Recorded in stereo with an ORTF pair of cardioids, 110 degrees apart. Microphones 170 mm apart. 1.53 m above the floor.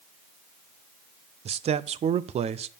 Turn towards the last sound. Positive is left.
turn(degrees=-40)